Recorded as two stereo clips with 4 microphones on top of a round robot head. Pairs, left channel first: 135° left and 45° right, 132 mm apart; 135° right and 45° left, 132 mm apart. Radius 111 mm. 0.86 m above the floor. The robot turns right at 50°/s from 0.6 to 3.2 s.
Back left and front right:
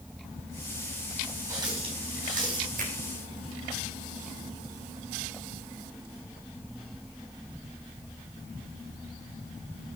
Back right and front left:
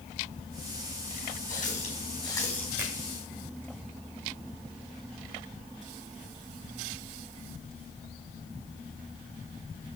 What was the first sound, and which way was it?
A running tap, 115° right.